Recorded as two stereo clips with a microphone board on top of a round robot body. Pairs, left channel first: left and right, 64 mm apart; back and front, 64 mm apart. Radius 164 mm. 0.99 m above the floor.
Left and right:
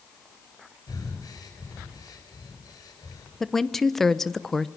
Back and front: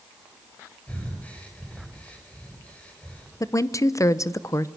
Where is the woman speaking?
175° left, 1.1 m.